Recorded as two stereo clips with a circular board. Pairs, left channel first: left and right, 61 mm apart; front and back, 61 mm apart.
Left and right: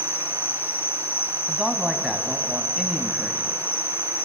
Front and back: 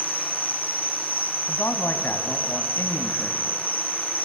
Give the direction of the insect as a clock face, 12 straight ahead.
10 o'clock.